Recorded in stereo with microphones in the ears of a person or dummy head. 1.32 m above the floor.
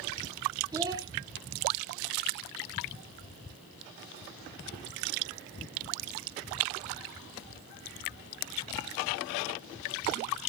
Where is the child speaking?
20° right (ahead or behind), 1.8 m.